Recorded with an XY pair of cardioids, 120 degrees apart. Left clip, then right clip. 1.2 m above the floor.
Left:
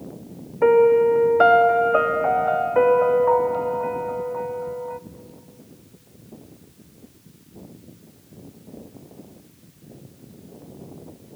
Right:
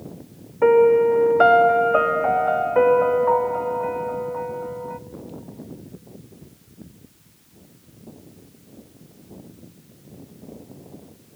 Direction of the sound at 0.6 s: Straight ahead.